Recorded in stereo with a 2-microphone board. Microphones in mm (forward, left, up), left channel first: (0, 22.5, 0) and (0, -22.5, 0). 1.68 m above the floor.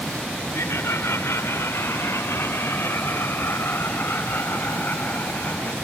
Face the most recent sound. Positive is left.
turn(degrees=50)  # may be behind; listen again after turning